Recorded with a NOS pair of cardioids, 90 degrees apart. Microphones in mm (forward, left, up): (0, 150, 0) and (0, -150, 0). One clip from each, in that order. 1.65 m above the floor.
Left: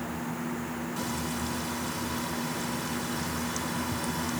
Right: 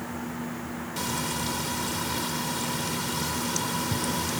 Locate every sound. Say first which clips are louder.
1.0 s frying: right 6 dB; 45° right